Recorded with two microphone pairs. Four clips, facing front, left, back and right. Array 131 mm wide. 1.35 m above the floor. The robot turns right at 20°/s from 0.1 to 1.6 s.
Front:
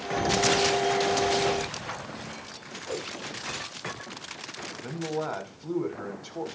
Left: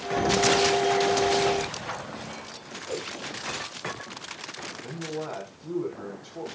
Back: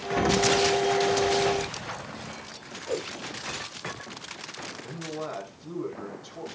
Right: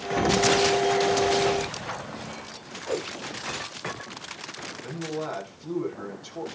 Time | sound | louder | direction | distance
0.2 | an explosion | right 1 dB, back 2 dB | 125° right | 1.0 m
2.9 | a whoosh | right 4 dB, back 4 dB | 80° right | 1.4 m
4.8 | a man speaking | right 2 dB, front 5 dB | 20° right | 4.5 m